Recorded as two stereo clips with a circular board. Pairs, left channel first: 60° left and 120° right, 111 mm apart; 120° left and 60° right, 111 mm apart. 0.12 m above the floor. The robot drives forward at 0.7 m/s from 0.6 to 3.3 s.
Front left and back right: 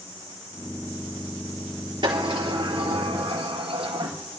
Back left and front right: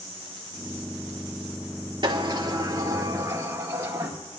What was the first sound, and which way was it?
A sliding door, 90° right.